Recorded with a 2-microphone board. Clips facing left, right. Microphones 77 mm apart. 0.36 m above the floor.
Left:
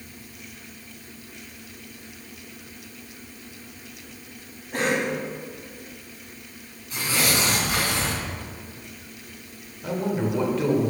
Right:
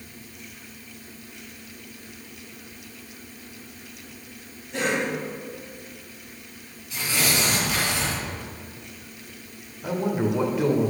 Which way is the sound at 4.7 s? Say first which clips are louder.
Left 1 dB; 50° left (ahead or behind).